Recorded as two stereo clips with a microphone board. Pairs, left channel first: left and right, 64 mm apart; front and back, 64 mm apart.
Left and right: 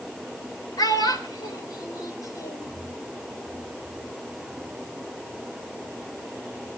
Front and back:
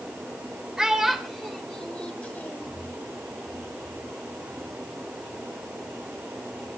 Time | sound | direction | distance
0.8 | a child speaking | 100° left | 3 m